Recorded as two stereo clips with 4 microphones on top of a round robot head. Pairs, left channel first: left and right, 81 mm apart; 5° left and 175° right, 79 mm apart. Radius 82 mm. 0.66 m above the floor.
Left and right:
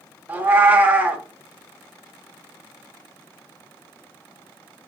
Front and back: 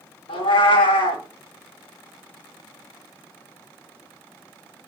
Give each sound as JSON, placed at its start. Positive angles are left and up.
{"t": 0.3, "sound": "a cat meowing", "azimuth_deg": -20, "distance_m": 0.8}